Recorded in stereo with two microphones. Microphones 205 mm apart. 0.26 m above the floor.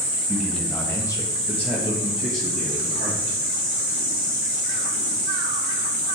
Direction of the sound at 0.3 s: 5° right (ahead or behind).